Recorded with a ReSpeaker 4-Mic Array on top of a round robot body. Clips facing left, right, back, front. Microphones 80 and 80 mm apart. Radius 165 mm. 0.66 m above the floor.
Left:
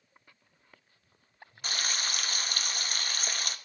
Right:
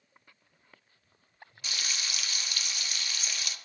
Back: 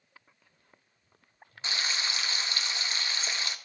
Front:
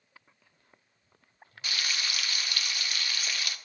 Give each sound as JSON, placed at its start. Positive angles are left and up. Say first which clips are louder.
{"t": 1.6, "sound": "frying", "louder": "left 4 dB, back 1 dB", "azimuth_deg": 120, "distance_m": 1.0}